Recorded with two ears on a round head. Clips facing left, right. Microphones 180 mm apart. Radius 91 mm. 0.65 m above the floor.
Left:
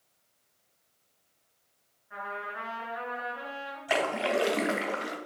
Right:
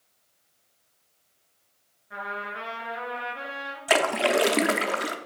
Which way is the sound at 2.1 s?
40° right (ahead or behind).